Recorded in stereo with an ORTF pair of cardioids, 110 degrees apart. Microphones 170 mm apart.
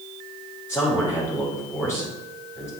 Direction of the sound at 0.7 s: 10° left.